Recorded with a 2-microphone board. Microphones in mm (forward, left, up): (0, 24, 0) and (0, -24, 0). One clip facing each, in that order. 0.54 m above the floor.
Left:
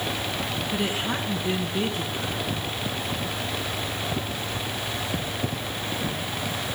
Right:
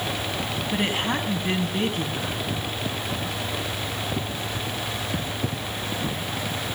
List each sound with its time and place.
0.7 s a woman speaking: 50° right (ahead or behind), 5 m